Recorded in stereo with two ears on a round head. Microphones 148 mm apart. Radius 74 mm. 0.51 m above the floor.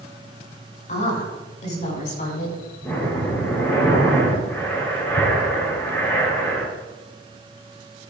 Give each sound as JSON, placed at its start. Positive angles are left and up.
{"t": 0.9, "sound": "a woman speaking", "side_deg": 45, "distance_m": 5.5}
{"t": 2.8, "sound": "breathing", "side_deg": 15, "distance_m": 5.5}